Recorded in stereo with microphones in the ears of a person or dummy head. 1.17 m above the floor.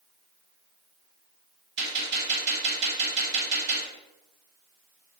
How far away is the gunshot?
About 0.9 m.